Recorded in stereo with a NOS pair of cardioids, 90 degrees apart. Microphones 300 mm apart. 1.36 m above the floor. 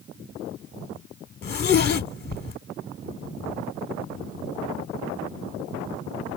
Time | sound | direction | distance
1.4 | a zipper | 35° left | 1.0 m